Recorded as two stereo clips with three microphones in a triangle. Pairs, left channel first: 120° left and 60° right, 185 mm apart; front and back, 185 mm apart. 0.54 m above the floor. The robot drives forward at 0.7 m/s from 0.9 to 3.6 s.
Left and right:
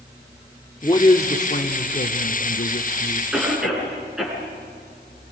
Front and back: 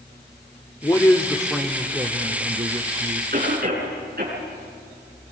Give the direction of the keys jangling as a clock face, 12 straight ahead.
No keys jangling in this recording.